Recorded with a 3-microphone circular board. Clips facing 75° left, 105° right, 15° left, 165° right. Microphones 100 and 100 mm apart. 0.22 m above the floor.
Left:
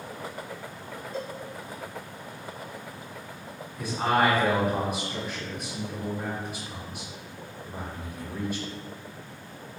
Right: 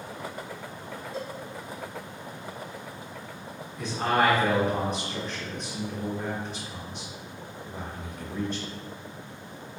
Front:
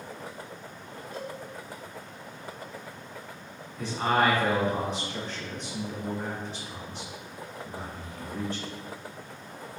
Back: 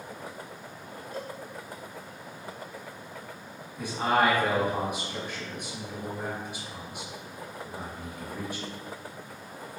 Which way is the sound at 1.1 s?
Straight behind.